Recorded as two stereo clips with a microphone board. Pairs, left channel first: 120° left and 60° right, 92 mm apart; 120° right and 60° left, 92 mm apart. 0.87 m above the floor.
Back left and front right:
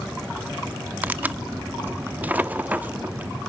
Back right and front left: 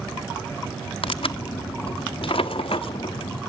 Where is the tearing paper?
130° right, 0.8 m.